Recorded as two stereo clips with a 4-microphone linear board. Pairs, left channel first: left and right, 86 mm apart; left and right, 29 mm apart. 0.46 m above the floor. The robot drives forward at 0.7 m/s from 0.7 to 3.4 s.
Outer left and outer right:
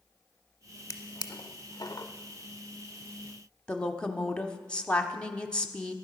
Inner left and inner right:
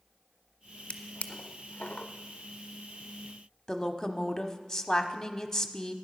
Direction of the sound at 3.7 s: 10° left (ahead or behind).